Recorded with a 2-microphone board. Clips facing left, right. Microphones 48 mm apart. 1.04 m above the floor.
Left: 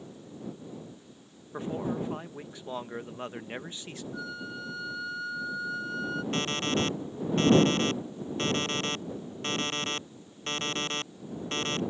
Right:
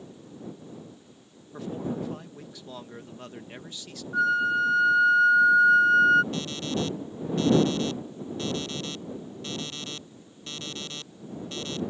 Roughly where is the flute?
Right.